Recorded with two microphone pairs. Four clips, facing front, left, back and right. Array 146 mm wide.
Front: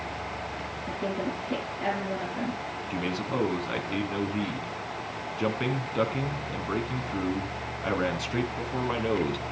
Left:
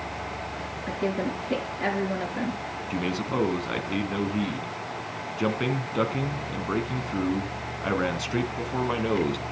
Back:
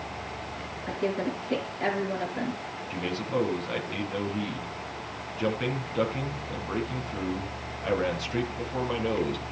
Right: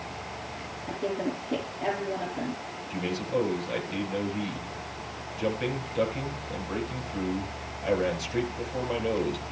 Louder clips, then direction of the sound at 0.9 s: Left 2 dB, back 2 dB; 110° left.